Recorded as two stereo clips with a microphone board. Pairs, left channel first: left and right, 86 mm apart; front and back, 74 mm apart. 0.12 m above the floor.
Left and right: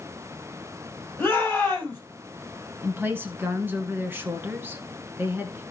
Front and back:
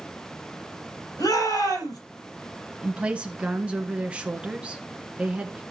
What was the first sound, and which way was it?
A shout, 20° left.